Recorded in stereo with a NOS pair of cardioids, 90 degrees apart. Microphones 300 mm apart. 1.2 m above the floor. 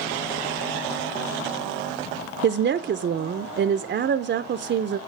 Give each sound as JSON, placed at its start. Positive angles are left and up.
{"t": 2.4, "sound": "a woman speaking", "azimuth_deg": -40, "distance_m": 0.6}